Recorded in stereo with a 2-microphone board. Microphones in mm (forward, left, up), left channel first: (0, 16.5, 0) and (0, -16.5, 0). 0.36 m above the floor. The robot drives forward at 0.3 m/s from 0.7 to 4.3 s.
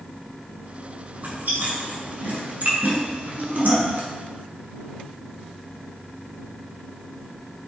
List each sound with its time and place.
1.2 s chewing: 65° right (ahead or behind), 3 m; by 4.0 s 50° right (ahead or behind), 3.5 m